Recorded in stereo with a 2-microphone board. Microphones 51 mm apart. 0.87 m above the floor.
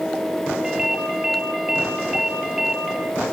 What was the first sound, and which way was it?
A ringtone, 10° right (ahead or behind).